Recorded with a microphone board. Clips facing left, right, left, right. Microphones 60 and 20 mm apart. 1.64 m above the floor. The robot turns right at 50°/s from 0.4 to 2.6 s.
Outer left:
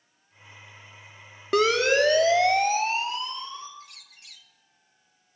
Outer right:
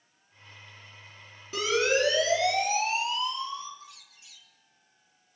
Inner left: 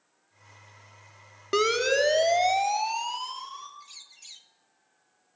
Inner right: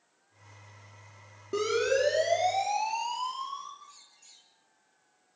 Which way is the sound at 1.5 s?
80° left.